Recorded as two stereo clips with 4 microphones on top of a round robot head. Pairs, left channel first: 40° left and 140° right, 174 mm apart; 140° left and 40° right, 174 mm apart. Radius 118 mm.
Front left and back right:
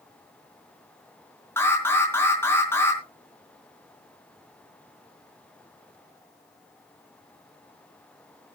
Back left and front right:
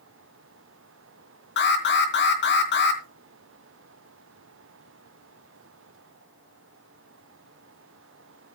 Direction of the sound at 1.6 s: 120° left.